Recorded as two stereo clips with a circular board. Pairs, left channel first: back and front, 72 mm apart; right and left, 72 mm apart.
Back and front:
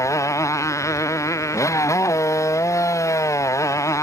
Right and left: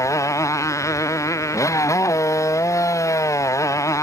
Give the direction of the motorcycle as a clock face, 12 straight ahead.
4 o'clock.